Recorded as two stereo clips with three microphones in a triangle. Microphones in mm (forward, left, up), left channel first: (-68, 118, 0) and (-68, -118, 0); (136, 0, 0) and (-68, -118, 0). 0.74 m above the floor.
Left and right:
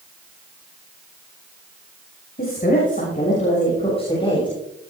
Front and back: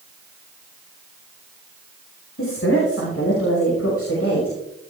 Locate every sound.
2.4 s a woman speaking: 45° left, 5 m; by 4.6 s 20° left, 6.5 m